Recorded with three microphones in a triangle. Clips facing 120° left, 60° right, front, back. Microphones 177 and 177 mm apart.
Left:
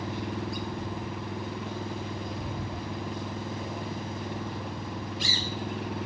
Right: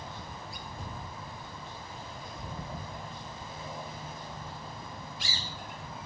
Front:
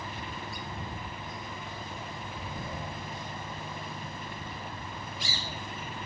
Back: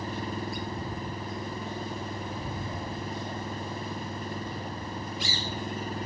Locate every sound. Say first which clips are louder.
0.0 s an engine running: left 11 dB, back 7 dB; 130° left